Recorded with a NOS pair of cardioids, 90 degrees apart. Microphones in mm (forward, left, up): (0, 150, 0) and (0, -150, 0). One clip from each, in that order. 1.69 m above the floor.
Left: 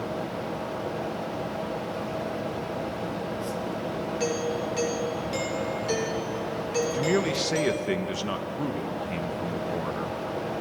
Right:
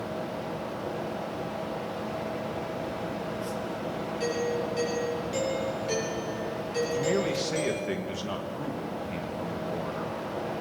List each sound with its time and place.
0.0 s a fan: 10° left, 1.1 m
4.2 s a doorbell: 30° left, 8 m
6.9 s a man speaking: 30° left, 1.8 m